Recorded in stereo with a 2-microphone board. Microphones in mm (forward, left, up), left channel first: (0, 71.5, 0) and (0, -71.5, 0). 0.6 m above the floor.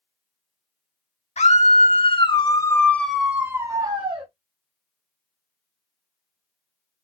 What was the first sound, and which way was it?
A scream, 55° left (ahead or behind).